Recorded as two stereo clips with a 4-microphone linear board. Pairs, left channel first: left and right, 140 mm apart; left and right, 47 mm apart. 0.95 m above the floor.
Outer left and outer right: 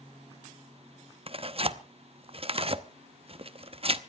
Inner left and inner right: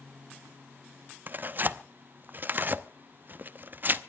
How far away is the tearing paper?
About 0.8 m.